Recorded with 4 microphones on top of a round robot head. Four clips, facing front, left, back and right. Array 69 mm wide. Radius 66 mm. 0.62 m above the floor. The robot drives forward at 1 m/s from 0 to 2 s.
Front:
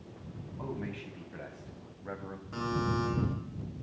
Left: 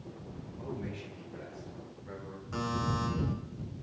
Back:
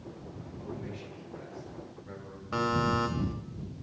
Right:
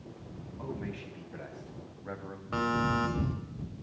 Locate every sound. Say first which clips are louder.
0.6 s a man speaking: right 1 dB, front 3 dB; 30° right, 4.5 m; by 2.4 s 45° right, 3.5 m
2.5 s a buzzer: right 5 dB, back 5 dB; 145° right, 4 m